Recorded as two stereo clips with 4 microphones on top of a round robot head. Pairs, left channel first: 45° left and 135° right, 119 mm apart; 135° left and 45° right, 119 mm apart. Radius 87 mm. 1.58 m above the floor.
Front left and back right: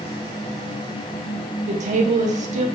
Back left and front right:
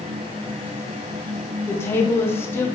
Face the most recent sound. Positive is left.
turn(degrees=-155)